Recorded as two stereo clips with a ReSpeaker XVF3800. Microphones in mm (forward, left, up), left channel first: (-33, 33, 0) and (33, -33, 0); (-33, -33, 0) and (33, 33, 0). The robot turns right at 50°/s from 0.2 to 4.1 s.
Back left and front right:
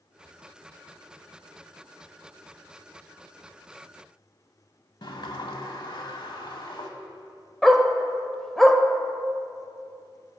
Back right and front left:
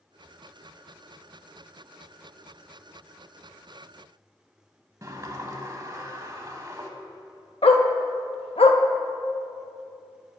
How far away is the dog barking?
About 0.5 m.